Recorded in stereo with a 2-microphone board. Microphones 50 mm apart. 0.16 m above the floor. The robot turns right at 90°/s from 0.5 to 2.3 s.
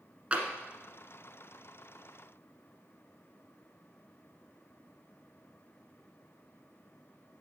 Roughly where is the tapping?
Right.